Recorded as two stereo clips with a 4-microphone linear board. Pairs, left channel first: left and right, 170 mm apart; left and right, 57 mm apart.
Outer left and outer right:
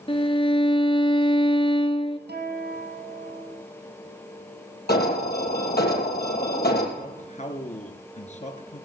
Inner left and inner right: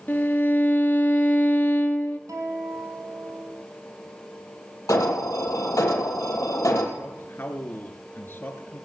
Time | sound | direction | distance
0.1 | a violin | 35° left (ahead or behind) | 1.1 m
2.3 | a guitar | 75° right (ahead or behind) | 4 m
4.9 | an alarm | 70° left (ahead or behind) | 3 m
7.0 | a man speaking | 45° left (ahead or behind) | 1.8 m